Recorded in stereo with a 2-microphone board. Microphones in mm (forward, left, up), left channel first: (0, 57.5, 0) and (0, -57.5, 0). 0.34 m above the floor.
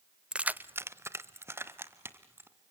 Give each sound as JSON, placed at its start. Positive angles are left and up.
{"t": 0.3, "sound": "keys jangling", "side_deg": -10, "distance_m": 0.6}